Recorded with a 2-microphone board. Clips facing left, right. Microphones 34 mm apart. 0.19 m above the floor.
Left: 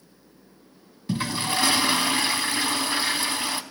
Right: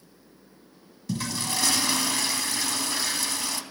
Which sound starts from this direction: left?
A toilet flushing, at 1.1 s.